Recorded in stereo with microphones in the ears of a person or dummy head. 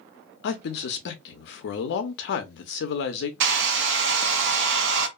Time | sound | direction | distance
0.4 | a man speaking | 60° left (ahead or behind) | 0.6 m
3.4 | a hair dryer | 70° right (ahead or behind) | 0.6 m